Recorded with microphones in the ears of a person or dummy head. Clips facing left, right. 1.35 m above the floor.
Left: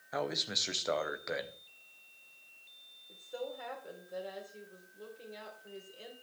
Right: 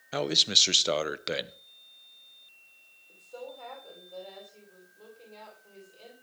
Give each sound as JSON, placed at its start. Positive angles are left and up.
{"t": 0.1, "sound": "a man speaking", "side_deg": -40, "distance_m": 0.7}
{"t": 3.1, "sound": "a woman speaking", "side_deg": 15, "distance_m": 4.0}